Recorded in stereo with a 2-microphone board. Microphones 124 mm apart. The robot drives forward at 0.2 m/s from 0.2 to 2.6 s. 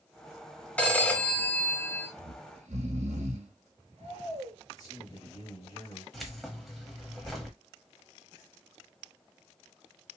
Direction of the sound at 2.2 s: 70° right (ahead or behind).